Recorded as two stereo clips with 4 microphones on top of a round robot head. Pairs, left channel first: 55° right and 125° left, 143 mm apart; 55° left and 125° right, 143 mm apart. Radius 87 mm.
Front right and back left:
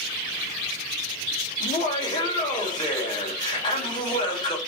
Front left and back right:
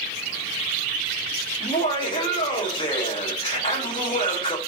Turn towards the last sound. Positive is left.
turn(degrees=5)